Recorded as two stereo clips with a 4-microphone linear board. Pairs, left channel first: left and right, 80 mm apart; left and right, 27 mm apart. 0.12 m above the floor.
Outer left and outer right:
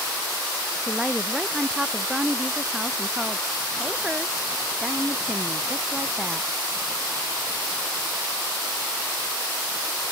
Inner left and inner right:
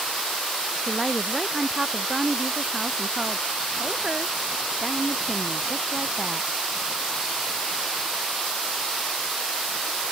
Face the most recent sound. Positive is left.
turn(degrees=-10)  # may be behind; listen again after turning